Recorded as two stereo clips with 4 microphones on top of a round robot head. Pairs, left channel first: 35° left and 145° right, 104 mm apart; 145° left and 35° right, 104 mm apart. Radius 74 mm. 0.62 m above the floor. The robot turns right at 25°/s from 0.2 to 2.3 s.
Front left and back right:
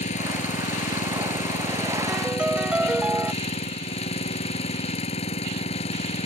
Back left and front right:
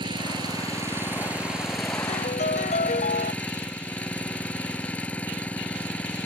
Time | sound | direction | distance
0.0 | an engine running | 15° left | ?
2.1 | a piano | 125° left | ?